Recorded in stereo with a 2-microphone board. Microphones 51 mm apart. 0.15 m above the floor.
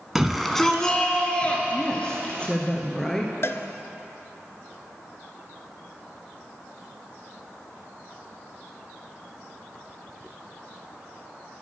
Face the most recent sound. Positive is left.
turn(degrees=60)  # may be behind; listen again after turning